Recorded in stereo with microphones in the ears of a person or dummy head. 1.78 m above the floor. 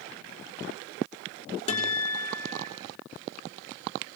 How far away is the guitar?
About 5 m.